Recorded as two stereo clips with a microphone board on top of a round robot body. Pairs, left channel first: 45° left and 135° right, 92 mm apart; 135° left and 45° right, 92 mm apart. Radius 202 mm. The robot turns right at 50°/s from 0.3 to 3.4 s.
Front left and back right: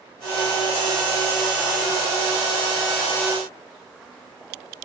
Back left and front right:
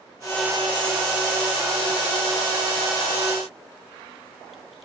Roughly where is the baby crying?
I don't hear a baby crying.